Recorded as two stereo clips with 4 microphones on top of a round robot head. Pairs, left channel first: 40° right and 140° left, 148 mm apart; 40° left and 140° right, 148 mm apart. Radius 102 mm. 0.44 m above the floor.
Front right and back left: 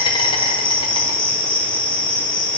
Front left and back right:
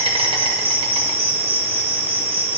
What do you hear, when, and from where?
0.0 s an insect: 95° right, 1.5 m